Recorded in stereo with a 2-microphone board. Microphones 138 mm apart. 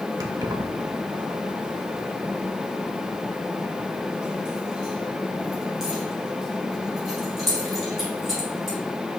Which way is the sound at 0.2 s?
25° right (ahead or behind).